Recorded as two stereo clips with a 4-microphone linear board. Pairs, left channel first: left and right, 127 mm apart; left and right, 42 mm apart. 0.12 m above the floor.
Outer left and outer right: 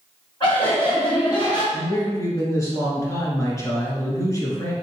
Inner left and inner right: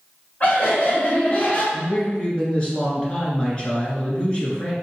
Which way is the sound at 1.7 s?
25° left (ahead or behind).